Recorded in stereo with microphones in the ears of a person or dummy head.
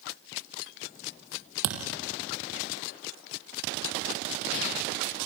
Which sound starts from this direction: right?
A thud, at 1.6 s.